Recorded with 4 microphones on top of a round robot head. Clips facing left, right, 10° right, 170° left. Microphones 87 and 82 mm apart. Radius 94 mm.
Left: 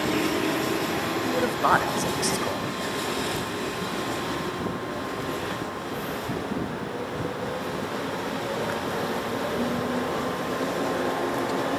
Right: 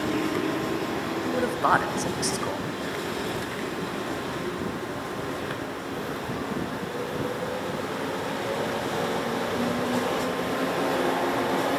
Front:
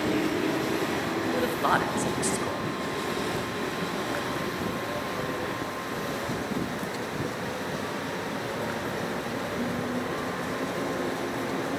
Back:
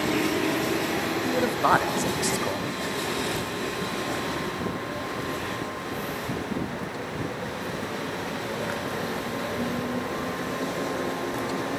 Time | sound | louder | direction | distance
1.2 | a man speaking | even, back 4 dB | straight behind | 0.8 m